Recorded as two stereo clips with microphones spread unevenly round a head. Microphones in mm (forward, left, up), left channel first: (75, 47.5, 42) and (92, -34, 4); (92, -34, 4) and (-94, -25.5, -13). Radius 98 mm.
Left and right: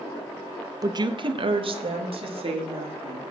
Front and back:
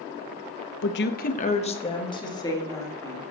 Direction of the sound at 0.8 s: 30° right.